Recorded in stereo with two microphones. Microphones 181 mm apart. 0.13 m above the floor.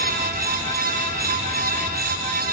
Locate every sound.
Only background noise.